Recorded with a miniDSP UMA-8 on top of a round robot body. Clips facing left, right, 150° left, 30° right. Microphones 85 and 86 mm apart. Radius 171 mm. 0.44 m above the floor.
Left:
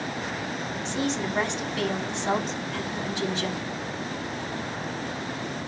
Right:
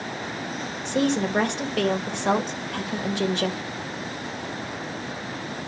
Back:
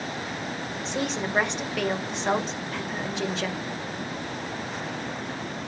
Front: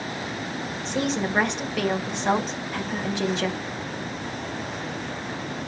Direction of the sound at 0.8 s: 120° right.